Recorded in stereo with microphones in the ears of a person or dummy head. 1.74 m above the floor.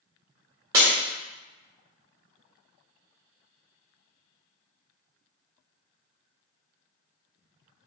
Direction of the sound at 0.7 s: 15° right (ahead or behind).